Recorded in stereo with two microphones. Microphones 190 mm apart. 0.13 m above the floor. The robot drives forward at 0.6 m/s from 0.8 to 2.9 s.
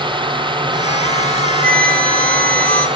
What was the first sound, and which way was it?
A drone, 25° right (ahead or behind).